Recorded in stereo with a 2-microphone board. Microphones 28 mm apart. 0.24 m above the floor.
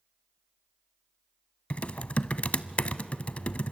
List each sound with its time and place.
1.7 s typing on a keyboard: 50° left (ahead or behind), 0.6 m